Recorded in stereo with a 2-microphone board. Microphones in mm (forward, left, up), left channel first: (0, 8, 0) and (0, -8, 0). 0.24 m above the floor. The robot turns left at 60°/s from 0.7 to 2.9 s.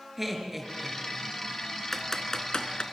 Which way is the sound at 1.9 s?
15° left (ahead or behind).